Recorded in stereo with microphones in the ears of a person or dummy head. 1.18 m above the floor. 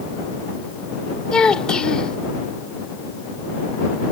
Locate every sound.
1.3 s a child speaking: 10° left (ahead or behind)